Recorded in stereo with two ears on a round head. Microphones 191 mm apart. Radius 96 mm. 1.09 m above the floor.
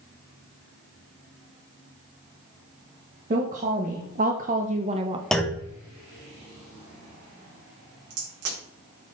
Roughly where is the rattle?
I don't hear a rattle.